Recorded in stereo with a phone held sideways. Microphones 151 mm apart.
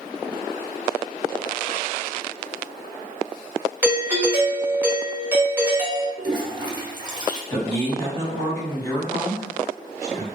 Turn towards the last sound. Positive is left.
turn(degrees=20)  # may be behind; listen again after turning